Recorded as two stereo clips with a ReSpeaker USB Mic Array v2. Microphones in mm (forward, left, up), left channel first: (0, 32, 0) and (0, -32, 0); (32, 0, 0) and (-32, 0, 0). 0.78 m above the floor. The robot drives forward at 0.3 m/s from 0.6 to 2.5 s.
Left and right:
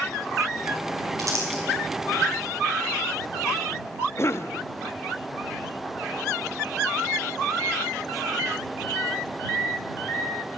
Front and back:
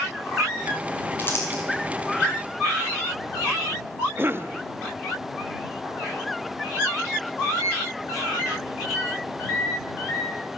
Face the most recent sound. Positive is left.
turn(degrees=130)